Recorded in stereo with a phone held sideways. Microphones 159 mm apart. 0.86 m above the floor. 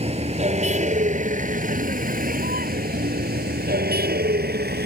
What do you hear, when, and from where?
0.0 s a vehicle: 40° right (ahead or behind); by 4.9 s 85° right